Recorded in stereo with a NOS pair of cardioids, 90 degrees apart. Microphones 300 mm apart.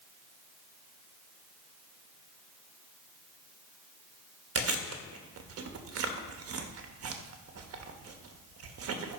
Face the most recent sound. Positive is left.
turn(degrees=-50)